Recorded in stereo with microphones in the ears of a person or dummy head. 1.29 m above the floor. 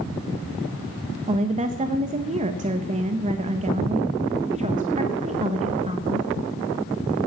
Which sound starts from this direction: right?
A woman speaking, at 1.3 s.